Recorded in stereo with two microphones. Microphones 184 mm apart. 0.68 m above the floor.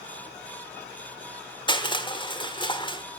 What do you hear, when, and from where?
1.7 s crushing: 25° left (ahead or behind), 1.3 m